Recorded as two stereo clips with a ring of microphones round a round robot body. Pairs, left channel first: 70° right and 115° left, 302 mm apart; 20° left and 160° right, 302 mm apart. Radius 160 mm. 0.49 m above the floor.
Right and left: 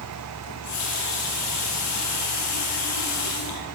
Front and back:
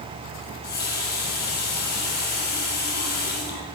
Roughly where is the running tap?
Ahead right.